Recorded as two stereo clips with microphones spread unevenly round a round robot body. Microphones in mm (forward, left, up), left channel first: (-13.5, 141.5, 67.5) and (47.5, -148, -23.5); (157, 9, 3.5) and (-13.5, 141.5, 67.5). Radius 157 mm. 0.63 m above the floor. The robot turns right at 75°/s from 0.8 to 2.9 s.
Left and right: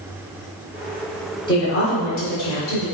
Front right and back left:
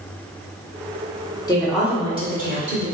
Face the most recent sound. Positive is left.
turn(degrees=125)